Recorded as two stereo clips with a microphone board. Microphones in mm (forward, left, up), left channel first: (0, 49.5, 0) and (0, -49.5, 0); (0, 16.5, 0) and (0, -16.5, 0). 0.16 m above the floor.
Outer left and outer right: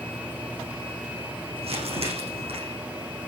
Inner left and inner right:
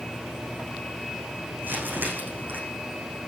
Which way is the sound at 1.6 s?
75° right (ahead or behind).